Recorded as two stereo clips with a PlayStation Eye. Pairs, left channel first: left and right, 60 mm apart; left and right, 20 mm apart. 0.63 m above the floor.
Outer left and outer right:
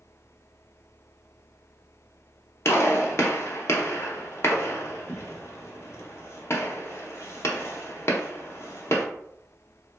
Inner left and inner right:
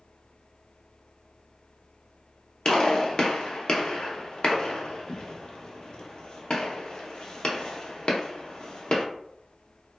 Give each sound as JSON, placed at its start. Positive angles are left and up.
{"t": 2.6, "sound": "a gunshot", "side_deg": 45, "distance_m": 0.5}